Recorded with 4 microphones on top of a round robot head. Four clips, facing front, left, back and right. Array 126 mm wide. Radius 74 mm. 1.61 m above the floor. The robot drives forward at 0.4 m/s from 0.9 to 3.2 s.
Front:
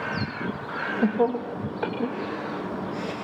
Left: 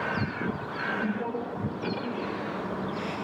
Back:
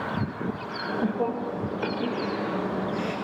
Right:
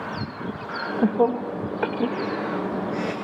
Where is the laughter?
65° right, 2.5 m; by 3.1 s 85° right, 2.5 m.